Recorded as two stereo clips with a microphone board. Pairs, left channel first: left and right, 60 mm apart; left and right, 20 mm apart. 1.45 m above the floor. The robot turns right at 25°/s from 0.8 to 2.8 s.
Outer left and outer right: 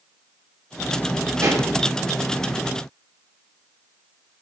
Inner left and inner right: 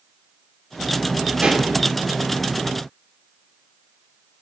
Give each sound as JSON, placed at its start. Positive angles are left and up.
{"t": 1.4, "sound": "a pop", "side_deg": -65, "distance_m": 2.0}